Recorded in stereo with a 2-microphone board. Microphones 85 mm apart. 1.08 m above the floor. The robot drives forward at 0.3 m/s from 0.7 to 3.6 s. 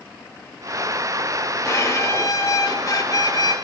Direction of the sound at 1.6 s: 35° left (ahead or behind).